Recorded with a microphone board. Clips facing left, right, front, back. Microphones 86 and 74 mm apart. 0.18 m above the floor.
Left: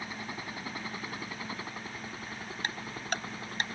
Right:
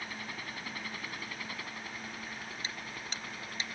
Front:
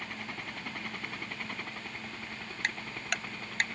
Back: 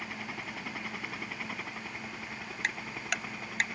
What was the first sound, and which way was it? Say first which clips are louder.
A helicopter: left 3 dB, back 1 dB; 100° left.